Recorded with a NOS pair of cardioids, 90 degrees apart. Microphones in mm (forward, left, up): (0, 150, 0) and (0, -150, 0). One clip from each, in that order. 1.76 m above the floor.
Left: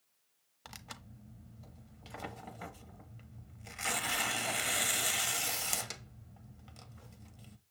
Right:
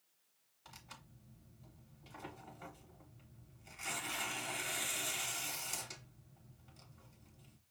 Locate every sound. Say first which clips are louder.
0.7 s tearing paper: left 6 dB; 60° left, 0.7 m